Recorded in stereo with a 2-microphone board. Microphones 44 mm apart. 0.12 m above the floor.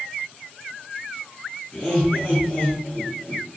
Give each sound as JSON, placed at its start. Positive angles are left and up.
{"t": 1.7, "sound": "laughter", "side_deg": 10, "distance_m": 1.3}